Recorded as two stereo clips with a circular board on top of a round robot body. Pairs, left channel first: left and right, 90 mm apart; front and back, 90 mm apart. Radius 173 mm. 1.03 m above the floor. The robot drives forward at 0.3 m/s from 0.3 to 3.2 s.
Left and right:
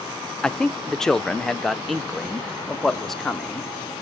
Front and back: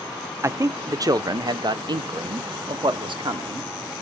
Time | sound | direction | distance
0.4 | a man speaking | 165° left | 0.8 m